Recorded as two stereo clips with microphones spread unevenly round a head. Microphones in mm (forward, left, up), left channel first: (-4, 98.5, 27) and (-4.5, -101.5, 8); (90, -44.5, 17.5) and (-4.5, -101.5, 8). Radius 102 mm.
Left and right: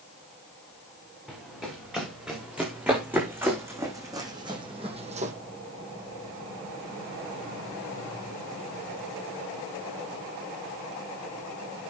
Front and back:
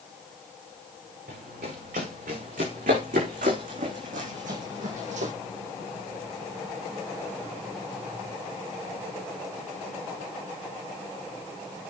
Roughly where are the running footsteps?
Behind.